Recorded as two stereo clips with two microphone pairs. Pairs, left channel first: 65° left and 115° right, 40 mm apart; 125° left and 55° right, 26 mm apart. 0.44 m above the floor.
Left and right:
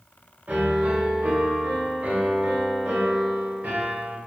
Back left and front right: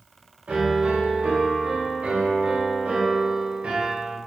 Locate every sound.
0.5 s a piano: 70° right, 0.8 m